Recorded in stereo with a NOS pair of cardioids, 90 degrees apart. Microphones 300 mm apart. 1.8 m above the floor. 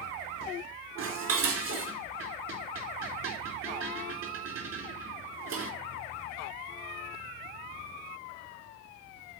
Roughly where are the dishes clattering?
Ahead right.